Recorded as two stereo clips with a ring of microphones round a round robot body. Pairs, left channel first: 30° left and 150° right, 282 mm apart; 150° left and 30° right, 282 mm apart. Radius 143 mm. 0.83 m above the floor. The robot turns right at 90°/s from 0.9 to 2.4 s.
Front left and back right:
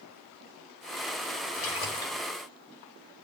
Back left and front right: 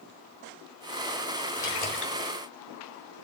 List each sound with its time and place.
1.6 s a splash: 65° left, 5 m; by 2.3 s 130° left, 5 m